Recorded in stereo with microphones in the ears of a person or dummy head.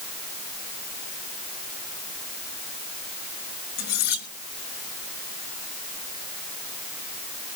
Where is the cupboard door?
No cupboard door in this recording.